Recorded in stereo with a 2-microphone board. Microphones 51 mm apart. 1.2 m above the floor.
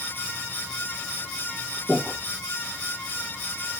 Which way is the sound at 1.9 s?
45° right (ahead or behind).